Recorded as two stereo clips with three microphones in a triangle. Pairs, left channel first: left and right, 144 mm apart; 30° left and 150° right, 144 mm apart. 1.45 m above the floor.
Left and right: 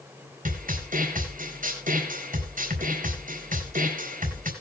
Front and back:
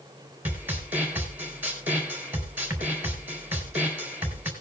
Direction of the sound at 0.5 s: 70° right.